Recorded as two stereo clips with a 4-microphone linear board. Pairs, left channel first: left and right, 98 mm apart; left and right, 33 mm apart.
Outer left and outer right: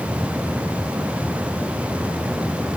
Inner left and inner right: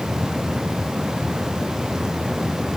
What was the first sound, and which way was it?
Only background noise.